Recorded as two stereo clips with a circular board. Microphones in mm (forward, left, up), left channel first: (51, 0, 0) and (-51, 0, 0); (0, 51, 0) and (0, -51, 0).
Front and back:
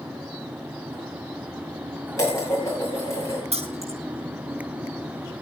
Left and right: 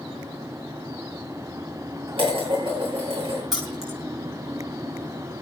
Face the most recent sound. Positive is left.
turn(degrees=-175)